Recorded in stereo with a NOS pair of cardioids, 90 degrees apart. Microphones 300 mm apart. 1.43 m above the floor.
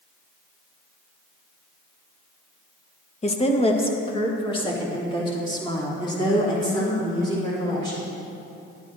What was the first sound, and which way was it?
A woman speaking, 20° left.